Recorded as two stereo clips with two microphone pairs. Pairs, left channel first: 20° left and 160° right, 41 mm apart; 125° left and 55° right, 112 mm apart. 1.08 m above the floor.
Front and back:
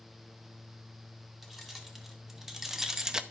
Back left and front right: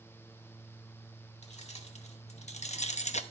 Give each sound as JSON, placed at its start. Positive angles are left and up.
{"t": 1.4, "sound": "keys jangling", "azimuth_deg": 115, "distance_m": 2.0}